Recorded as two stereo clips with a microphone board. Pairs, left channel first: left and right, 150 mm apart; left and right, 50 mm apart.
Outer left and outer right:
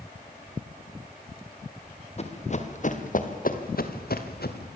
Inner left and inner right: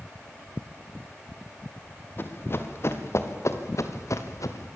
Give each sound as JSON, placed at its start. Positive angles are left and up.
{"t": 2.2, "sound": "running footsteps", "side_deg": 40, "distance_m": 3.0}